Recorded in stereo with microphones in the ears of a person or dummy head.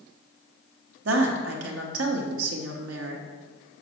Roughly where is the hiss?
I don't hear a hiss.